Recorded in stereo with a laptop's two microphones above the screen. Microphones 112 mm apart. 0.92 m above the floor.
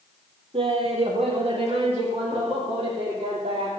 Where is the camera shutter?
I don't hear a camera shutter.